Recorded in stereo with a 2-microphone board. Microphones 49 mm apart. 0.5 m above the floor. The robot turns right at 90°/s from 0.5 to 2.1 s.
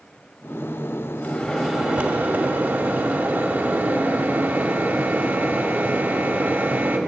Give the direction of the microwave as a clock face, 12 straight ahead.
7 o'clock.